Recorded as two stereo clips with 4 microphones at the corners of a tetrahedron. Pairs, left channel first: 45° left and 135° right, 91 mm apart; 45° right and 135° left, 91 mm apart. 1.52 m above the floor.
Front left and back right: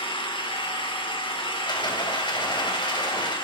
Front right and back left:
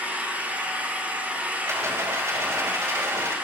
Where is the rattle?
75° left, 3.5 m.